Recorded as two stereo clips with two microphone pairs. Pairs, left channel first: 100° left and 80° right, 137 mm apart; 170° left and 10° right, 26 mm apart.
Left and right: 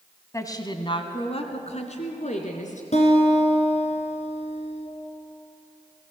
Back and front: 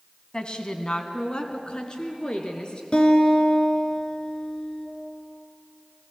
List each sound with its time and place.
0.3 s a woman speaking: 155° left, 1.5 m; by 2.8 s 120° left, 3.5 m
2.9 s a guitar: 125° left, 3 m